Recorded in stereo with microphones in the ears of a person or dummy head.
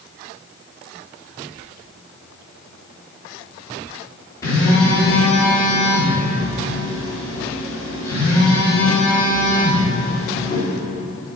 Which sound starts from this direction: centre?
A phone buzzing, at 4.4 s.